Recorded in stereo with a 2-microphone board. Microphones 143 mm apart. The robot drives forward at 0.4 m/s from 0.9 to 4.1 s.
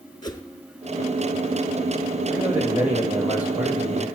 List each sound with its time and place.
0.2 s a whoosh: 30° left (ahead or behind), 0.9 m
2.3 s a man speaking: 10° right (ahead or behind), 4 m; by 4.1 s 15° right (ahead or behind), 3 m